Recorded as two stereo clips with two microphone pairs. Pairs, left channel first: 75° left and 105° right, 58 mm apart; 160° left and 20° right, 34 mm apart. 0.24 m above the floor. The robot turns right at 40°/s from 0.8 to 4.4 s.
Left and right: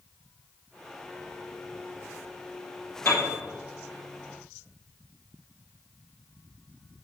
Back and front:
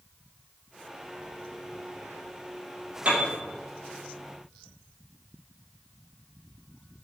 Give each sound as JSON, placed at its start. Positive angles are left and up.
{"t": 3.0, "sound": "a piano", "azimuth_deg": 25, "distance_m": 3.5}